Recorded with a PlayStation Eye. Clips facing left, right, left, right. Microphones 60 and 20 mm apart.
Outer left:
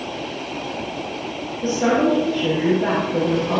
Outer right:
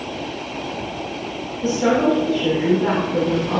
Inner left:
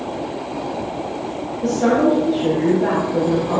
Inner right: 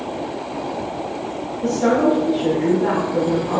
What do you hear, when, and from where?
1.6 s a woman speaking: 40° left (ahead or behind), 4.5 m